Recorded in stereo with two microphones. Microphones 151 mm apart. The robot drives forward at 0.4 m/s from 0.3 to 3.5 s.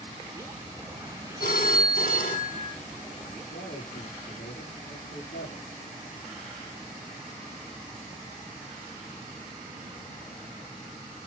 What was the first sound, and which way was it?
A phone ringing, 75° left (ahead or behind).